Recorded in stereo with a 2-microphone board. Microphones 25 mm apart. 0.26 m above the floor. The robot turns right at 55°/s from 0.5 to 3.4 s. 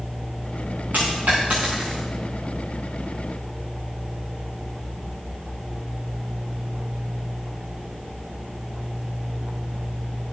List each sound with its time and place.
0.9 s a dropped coin: 85° right, 5.5 m; by 2.0 s 25° right (ahead or behind), 5.5 m